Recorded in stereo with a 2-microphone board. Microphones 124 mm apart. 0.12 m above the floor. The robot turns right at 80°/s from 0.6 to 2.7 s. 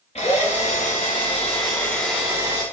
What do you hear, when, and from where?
0.1 s a drill: 60° left, 6.5 m; by 2.6 s 135° right, 6.5 m